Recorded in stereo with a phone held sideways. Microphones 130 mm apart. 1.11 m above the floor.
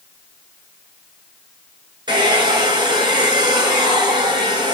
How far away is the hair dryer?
About 7 m.